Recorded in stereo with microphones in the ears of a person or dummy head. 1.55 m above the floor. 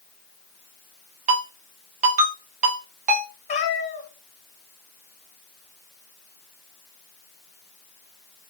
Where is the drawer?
I don't hear a drawer.